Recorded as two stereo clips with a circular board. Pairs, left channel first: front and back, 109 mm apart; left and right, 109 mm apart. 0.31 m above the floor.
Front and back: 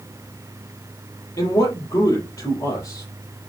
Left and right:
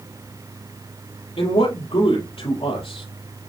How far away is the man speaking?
About 5.5 m.